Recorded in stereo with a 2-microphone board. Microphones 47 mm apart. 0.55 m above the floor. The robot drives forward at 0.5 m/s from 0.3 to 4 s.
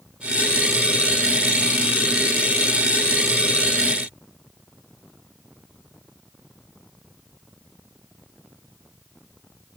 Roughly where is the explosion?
No explosion in this recording.